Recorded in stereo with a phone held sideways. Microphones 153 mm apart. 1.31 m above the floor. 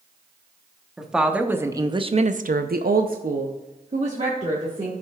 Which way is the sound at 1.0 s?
Centre (ahead or behind).